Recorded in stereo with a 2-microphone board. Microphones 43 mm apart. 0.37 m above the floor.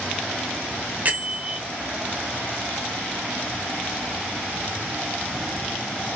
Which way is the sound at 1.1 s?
35° right (ahead or behind).